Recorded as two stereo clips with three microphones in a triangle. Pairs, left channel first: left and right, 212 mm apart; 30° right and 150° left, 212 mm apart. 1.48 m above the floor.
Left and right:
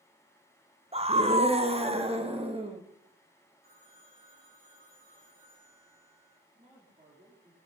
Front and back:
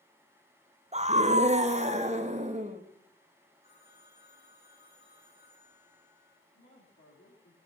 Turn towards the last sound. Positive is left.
turn(degrees=-30)